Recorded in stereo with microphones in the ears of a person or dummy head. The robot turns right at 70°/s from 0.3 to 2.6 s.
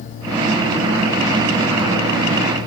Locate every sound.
Only background noise.